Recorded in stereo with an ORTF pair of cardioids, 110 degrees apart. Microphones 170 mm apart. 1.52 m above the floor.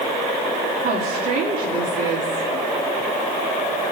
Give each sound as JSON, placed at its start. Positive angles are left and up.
{"t": 0.8, "sound": "a woman speaking", "azimuth_deg": -70, "distance_m": 4.5}